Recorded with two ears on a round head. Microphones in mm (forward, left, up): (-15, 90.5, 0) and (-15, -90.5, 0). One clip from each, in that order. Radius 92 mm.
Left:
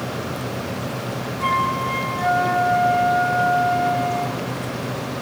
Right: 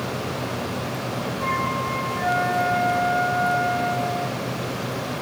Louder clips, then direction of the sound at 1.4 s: Left 5 dB; 65° left (ahead or behind).